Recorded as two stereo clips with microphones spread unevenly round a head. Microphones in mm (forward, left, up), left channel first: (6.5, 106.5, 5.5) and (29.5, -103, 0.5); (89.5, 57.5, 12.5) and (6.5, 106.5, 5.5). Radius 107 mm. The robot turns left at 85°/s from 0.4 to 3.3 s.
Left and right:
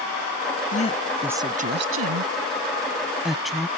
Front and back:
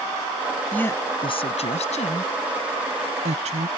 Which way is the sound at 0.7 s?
45° left.